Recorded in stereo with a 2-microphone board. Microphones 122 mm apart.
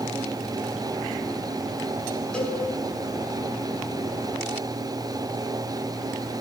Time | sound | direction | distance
2.3 | a cowbell | 10° left (ahead or behind) | 6.5 m